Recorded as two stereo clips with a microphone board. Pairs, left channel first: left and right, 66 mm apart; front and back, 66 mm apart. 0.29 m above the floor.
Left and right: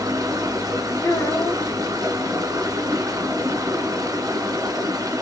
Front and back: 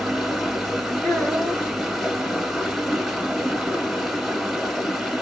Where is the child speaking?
80° left, 2.5 m.